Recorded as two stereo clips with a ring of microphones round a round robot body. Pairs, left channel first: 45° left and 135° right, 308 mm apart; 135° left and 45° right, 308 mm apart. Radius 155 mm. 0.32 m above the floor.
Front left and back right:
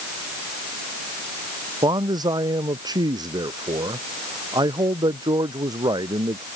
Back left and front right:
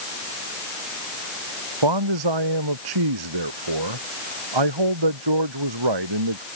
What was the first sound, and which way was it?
A man speaking, 55° right.